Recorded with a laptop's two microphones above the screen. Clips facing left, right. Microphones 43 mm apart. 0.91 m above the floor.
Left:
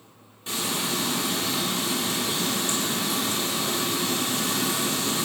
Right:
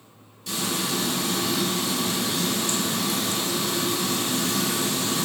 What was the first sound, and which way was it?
Frying, 30° left (ahead or behind).